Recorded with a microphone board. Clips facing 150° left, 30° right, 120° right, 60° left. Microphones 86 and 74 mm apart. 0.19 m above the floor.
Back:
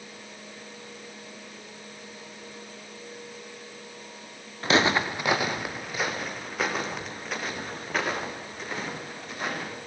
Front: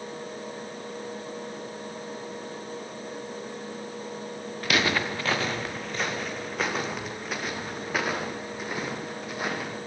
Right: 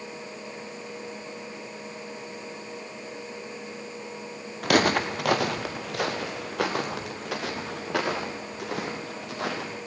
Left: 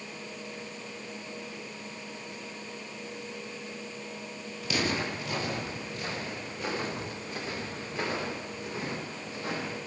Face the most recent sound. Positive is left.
turn(degrees=-110)